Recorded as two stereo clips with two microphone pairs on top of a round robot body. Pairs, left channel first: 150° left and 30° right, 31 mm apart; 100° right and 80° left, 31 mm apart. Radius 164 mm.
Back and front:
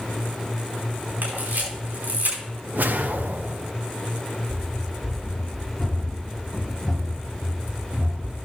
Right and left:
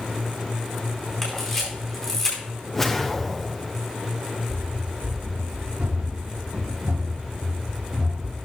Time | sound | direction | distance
1.2 | a camera shutter | 25° right | 4.5 m
2.7 | a whoosh | 25° right | 1.0 m
4.5 | running footsteps | 75° left | 4.5 m